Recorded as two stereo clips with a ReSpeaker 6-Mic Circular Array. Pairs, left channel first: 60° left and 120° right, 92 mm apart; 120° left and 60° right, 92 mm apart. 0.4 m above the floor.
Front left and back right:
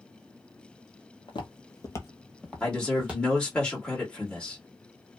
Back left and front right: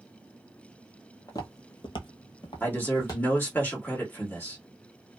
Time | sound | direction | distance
1.3 | footsteps | 75° left | 0.7 m
2.6 | a man speaking | 120° left | 1.4 m